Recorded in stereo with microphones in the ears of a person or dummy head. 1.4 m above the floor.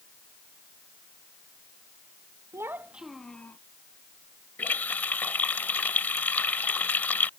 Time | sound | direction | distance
2.5 | a child speaking | 15° right (ahead or behind) | ?
4.6 | a running tap | 10° left (ahead or behind) | ?